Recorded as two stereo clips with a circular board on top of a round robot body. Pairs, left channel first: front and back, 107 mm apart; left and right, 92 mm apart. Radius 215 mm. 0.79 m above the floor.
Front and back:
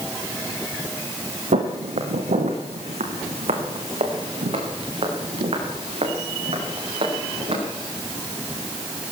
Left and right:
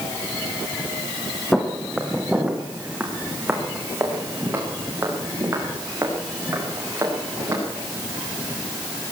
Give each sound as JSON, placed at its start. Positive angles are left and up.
{"t": 1.5, "sound": "footsteps", "azimuth_deg": 175, "distance_m": 2.0}